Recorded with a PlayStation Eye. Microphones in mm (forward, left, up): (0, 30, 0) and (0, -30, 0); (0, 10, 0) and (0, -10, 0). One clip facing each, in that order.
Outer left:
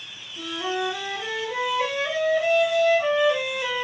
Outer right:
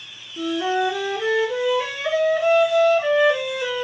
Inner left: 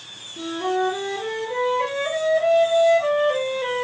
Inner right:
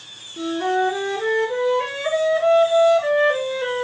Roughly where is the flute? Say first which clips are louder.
Outer right 6 dB, inner right 3 dB; right.